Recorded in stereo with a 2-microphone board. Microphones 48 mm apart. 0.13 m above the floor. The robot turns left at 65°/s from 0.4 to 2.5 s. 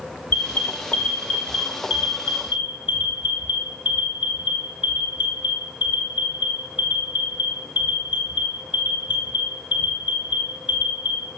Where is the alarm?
50° left (ahead or behind), 4 m; by 11.2 s 20° right (ahead or behind), 4 m.